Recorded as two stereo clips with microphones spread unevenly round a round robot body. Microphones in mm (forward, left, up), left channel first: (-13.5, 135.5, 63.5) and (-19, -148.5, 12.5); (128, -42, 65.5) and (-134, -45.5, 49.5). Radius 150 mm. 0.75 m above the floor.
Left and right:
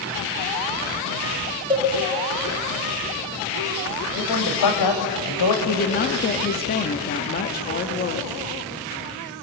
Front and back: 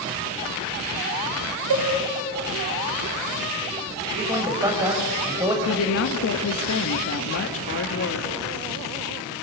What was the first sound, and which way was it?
A cowbell, 165° right.